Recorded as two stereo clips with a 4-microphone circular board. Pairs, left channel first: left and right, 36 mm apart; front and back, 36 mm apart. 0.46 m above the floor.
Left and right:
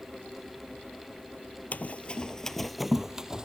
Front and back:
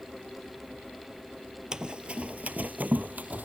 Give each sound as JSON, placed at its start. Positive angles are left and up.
{"t": 1.7, "sound": "running footsteps", "azimuth_deg": 120, "distance_m": 0.7}